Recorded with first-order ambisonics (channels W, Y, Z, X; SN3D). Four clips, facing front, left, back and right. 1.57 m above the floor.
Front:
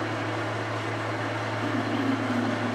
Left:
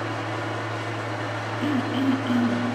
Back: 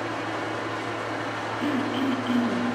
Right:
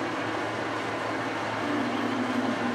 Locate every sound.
0.0 s an engine running: 130° left, 1.9 m
1.6 s throat clearing: 135° left, 0.5 m